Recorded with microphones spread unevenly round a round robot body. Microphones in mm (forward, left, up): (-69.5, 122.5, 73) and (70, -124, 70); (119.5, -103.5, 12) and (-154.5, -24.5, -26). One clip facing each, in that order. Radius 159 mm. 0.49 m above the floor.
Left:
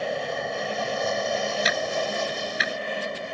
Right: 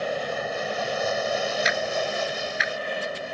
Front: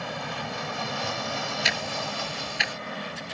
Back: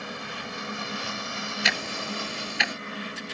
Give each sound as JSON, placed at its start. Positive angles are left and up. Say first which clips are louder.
{"t": 0.0, "sound": "an aircraft", "louder": "even, front 3 dB", "azimuth_deg": 25}
{"t": 1.6, "sound": "ticking", "louder": "even, even", "azimuth_deg": 170}